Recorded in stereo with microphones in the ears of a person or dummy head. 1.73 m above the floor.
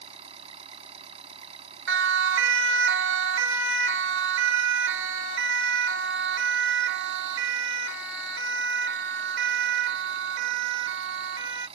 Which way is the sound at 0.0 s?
35° right (ahead or behind).